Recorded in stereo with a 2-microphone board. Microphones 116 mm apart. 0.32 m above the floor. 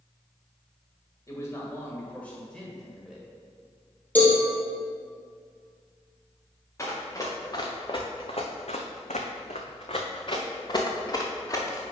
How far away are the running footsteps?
About 2 m.